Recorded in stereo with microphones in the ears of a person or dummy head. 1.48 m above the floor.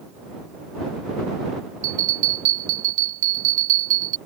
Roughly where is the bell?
Right.